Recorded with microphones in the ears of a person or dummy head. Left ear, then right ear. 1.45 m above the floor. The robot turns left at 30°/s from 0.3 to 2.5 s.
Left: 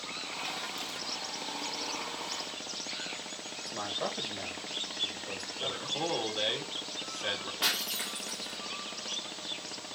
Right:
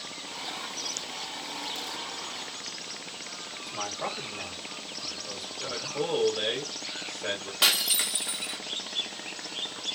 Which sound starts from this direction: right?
Breaking glass, at 7.6 s.